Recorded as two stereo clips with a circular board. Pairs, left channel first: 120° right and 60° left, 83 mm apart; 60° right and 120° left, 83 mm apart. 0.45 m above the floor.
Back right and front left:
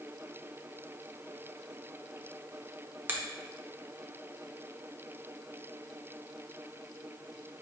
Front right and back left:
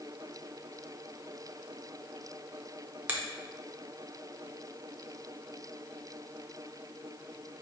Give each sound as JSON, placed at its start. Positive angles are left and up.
{"t": 3.1, "sound": "a finger snap", "azimuth_deg": 90, "distance_m": 0.7}